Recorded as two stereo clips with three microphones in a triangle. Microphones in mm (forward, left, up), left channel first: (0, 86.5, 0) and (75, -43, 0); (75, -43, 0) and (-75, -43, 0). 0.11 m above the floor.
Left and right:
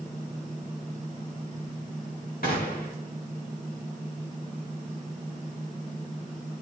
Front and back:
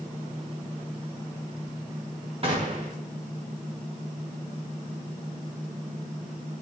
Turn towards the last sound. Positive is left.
turn(degrees=130)